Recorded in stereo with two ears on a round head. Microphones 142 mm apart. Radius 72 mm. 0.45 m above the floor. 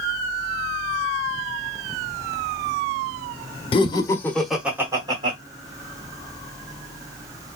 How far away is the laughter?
About 0.8 m.